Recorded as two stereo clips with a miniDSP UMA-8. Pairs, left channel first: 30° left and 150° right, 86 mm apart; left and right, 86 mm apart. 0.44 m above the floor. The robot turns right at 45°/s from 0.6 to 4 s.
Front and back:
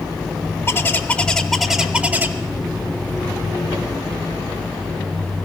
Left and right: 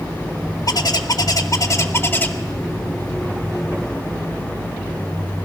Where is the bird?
80° left, 0.8 m; by 2.3 s 155° left, 0.8 m.